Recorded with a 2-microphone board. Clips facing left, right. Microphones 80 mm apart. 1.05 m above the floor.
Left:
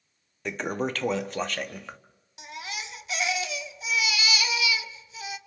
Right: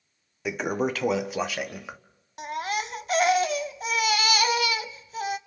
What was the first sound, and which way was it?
A toilet flushing, 10° right (ahead or behind).